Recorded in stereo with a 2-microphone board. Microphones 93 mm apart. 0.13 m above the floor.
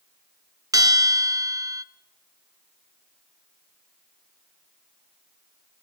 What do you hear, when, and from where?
0.7 s a bell: 40° right (ahead or behind), 0.6 m